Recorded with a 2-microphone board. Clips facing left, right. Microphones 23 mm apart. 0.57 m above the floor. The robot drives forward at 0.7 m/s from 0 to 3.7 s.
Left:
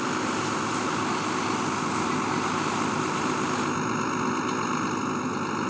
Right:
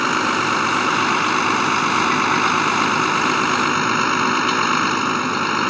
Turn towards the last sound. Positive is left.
turn(degrees=-70)  # may be behind; listen again after turning